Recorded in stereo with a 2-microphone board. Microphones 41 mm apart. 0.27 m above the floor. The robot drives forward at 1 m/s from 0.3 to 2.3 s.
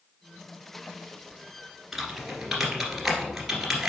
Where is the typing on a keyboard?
10° right (ahead or behind), 1.3 m.